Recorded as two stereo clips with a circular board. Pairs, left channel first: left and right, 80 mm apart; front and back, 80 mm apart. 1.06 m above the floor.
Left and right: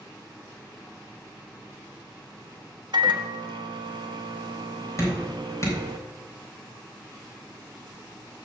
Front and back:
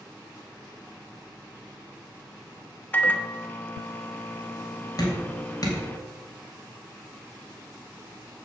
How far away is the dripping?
About 3.5 m.